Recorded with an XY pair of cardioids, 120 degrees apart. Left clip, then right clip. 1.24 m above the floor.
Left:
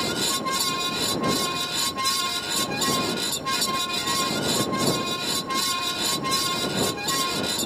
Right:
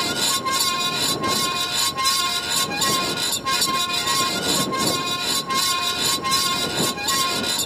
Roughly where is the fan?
Ahead right.